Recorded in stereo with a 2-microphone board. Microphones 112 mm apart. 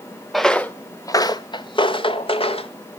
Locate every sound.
0.3 s footsteps: centre (ahead or behind), 0.6 m; by 2.7 s 60° left (ahead or behind), 1.4 m